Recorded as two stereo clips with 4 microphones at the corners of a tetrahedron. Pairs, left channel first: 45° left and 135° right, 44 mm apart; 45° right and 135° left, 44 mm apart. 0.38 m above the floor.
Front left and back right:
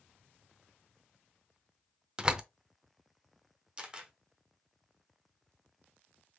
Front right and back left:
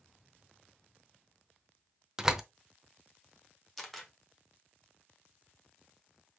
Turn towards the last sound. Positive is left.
turn(degrees=-130)